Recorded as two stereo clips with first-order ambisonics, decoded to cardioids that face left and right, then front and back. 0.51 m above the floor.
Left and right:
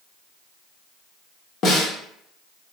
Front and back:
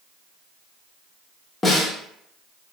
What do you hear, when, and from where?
1.6 s a snare drum: 70° left, 0.7 m